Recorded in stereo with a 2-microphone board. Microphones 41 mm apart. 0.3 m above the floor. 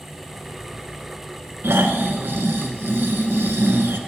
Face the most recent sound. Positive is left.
turn(degrees=-70)  # may be behind; listen again after turning